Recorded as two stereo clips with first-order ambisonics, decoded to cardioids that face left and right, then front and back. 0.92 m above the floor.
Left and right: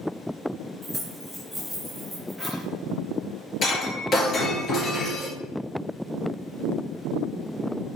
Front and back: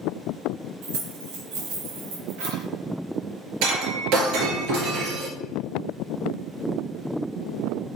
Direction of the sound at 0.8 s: Straight behind.